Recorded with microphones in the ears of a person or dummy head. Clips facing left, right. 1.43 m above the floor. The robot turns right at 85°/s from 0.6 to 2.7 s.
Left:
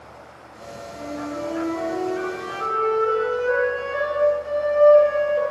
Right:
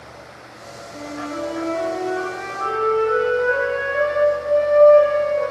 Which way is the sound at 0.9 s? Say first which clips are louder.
Right 1 dB; 80° right.